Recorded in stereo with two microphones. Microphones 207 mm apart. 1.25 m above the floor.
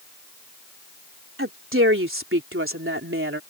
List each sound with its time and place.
1.4 s a woman speaking: 75° right (ahead or behind); by 3.4 s 80° right